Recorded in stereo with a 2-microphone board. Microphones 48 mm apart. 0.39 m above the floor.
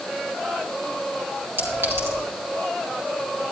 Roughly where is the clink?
Right.